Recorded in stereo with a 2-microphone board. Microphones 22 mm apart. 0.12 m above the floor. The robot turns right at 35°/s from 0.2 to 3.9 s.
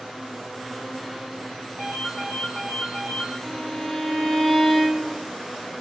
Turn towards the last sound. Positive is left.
turn(degrees=30)  # may be behind; listen again after turning